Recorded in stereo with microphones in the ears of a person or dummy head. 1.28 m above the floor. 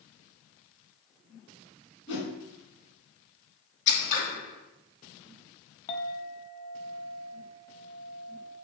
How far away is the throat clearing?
I don't hear throat clearing.